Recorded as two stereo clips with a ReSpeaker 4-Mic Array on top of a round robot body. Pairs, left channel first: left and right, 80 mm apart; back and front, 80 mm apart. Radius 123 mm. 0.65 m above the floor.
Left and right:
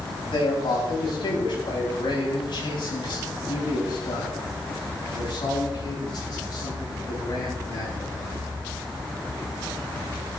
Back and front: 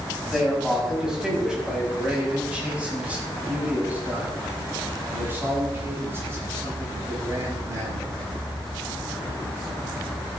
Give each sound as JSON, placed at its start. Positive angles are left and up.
{"t": 0.3, "sound": "a man speaking", "azimuth_deg": 90, "distance_m": 6.0}